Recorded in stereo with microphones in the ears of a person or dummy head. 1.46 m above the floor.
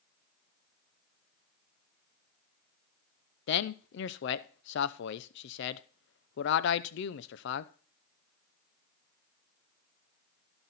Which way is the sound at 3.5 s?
70° left (ahead or behind).